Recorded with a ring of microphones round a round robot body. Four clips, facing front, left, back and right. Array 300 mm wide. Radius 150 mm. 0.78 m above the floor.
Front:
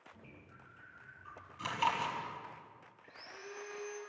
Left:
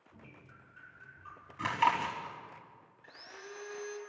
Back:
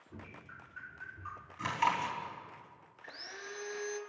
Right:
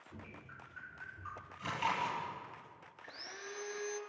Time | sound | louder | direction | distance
0.1 | dripping | right 4 dB, back 12 dB | 160° right | 5 m
1.6 | chewing | left 7 dB, back 2 dB | 105° left | 4.5 m
3.0 | sawing | even, back 3 dB | 175° right | 4.5 m